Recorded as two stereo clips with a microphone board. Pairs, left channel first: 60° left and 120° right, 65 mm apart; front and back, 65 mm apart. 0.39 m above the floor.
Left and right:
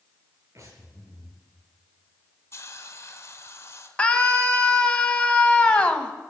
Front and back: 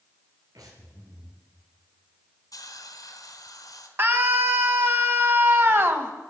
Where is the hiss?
15° left, 2 m.